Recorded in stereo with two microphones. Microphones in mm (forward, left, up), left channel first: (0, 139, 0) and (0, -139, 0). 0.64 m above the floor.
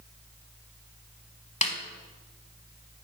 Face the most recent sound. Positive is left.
turn(degrees=25)  # may be behind; listen again after turning